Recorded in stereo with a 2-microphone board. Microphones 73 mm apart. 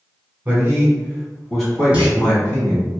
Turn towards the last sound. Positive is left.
turn(degrees=-20)  # may be behind; listen again after turning